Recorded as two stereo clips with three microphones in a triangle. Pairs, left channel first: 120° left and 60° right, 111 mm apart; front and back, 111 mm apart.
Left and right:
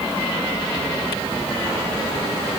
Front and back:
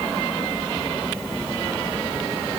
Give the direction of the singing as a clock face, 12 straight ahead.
I don't hear singing.